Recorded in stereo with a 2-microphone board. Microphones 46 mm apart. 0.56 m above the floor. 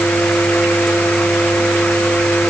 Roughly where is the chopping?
I don't hear chopping.